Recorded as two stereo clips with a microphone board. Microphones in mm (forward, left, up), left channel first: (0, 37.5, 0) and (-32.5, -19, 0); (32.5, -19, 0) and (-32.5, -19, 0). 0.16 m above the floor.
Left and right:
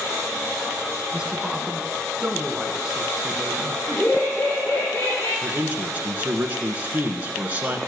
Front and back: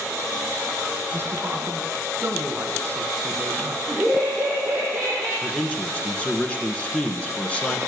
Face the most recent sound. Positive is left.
turn(degrees=-65)